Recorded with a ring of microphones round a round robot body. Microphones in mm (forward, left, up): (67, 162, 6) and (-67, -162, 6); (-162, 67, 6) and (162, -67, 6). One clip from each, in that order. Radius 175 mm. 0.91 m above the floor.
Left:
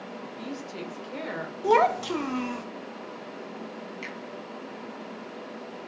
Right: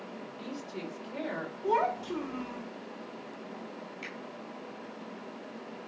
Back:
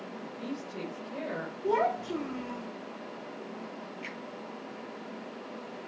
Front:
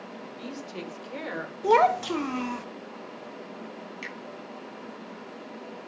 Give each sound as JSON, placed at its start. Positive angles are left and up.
{"t": 0.2, "sound": "a woman speaking", "azimuth_deg": 0, "distance_m": 3.5}
{"t": 1.6, "sound": "a child speaking", "azimuth_deg": 15, "distance_m": 0.6}
{"t": 4.0, "sound": "a finger snap", "azimuth_deg": -5, "distance_m": 5.5}